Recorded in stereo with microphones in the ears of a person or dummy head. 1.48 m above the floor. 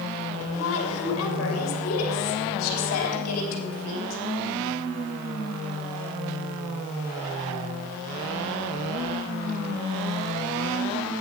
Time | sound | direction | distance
0.5 | a woman speaking | 80° left | 2.5 m